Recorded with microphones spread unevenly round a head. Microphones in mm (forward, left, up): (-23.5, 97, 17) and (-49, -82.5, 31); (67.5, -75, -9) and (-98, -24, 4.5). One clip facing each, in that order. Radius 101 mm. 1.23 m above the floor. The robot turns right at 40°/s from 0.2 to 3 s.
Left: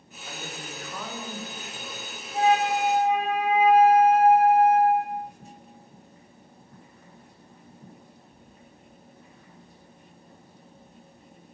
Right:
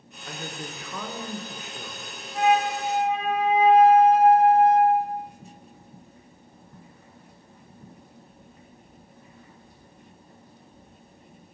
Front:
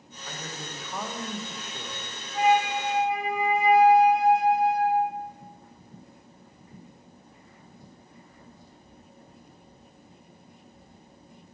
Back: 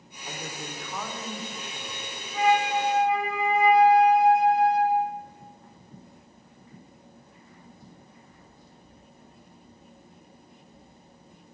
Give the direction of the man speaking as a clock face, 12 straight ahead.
4 o'clock.